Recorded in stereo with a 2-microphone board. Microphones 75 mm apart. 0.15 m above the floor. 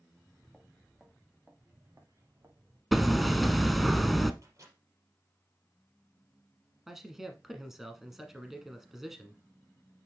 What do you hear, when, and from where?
0.1 s footsteps: 20° left (ahead or behind), 2 m; by 2.8 s 50° right (ahead or behind), 2.5 m
2.9 s hammering: centre (ahead or behind), 0.5 m
4.4 s a microwave: 45° right (ahead or behind), 3.5 m
6.9 s a man speaking: 5° right (ahead or behind), 1.2 m